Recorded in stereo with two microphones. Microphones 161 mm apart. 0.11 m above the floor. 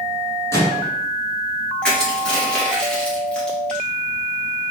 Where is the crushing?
5° left (ahead or behind), 1.5 m.